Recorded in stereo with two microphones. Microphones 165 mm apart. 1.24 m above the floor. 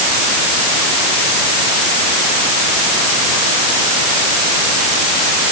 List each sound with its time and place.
Only background noise.